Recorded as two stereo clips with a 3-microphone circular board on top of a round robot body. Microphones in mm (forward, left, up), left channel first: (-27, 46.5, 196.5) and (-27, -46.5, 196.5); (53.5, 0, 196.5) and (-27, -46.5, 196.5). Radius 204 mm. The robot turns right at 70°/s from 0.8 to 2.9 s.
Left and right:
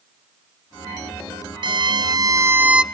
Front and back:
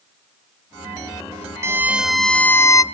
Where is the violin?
95° right, 0.8 m; by 2.8 s 10° right, 0.8 m.